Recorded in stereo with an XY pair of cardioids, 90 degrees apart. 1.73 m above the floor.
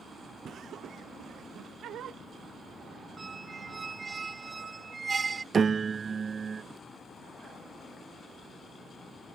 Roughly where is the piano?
Ahead right.